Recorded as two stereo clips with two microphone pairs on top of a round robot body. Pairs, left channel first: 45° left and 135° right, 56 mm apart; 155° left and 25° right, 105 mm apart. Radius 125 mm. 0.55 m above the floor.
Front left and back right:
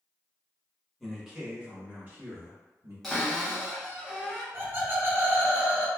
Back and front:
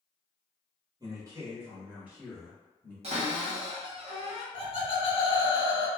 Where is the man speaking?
45° right, 1.3 m; by 2.9 s 130° right, 1.7 m.